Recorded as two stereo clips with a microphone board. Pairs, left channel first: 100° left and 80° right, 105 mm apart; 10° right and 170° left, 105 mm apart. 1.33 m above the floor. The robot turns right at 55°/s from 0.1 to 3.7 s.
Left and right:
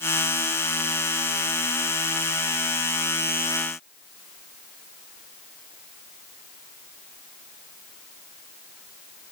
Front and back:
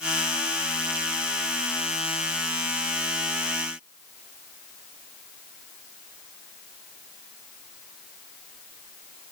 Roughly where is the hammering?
I don't hear hammering.